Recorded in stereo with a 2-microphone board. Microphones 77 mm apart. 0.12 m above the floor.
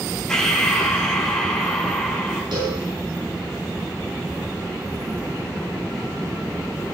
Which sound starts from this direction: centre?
Breathing, at 0.3 s.